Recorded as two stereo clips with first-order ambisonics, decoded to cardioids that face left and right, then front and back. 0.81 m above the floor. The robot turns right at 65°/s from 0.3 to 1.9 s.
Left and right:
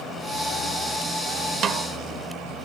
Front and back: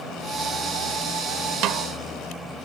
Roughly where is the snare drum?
Behind right.